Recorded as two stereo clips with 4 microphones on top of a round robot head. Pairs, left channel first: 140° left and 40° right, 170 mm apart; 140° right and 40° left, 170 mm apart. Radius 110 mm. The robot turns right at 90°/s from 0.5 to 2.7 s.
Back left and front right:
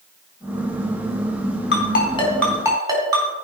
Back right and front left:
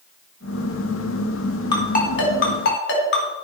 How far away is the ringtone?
About 3.5 m.